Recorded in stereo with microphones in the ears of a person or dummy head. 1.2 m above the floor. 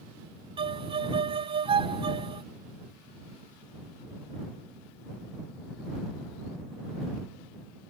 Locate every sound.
0.6 s a violin: 25° right (ahead or behind)